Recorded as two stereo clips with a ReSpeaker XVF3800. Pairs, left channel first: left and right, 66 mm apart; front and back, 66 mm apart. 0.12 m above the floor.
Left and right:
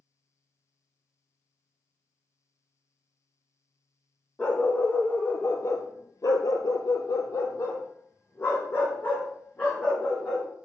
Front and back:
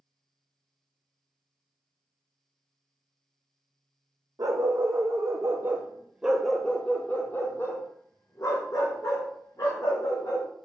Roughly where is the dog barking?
Behind.